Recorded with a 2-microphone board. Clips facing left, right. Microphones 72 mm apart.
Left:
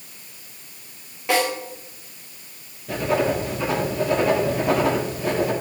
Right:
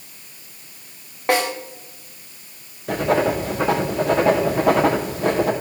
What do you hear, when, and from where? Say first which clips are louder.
1.3 s a snare drum: right 1 dB; 50° right (ahead or behind), 5.5 m
2.9 s writing: right 3 dB; 75° right (ahead or behind), 4 m